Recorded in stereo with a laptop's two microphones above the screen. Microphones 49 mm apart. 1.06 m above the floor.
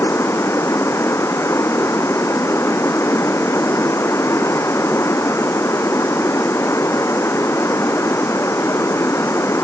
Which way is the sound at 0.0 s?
70° left (ahead or behind).